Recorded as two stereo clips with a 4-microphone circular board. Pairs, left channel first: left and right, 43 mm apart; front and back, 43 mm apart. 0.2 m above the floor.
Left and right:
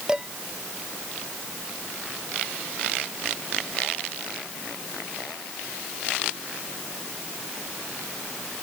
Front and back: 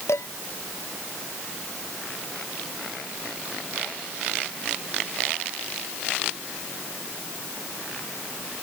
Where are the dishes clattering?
15° right.